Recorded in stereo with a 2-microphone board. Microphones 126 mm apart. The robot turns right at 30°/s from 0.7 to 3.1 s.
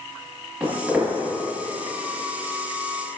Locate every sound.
0.6 s footsteps: 10° right (ahead or behind), 1.6 m; by 1.1 s 5° right (ahead or behind), 1.6 m